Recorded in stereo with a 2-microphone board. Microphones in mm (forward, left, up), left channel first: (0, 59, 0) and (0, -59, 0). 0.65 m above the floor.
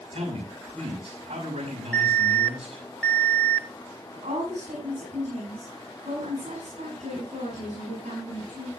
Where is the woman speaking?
75° right (ahead or behind), 8 m.